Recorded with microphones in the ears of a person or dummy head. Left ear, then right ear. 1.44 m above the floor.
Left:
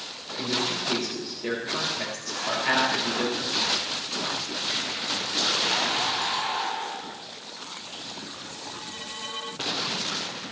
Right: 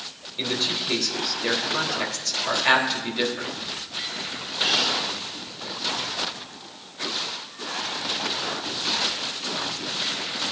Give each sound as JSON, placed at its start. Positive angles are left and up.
{"t": 0.4, "sound": "a man speaking", "side_deg": -35, "distance_m": 3.0}